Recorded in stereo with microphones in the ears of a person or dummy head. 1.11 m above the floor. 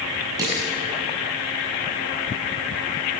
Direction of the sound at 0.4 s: 20° right (ahead or behind).